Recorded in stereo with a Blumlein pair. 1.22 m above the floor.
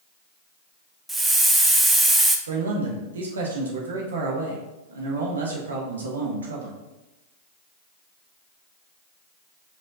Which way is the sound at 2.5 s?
70° right.